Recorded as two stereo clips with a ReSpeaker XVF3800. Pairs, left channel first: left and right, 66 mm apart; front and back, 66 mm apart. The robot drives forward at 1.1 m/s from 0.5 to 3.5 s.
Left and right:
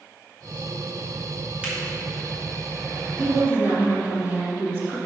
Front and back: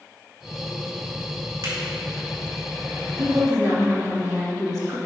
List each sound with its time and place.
1.6 s a finger snap: 160° right, 2.5 m
3.2 s a woman speaking: 145° right, 2.5 m; by 5.0 s 150° right, 3 m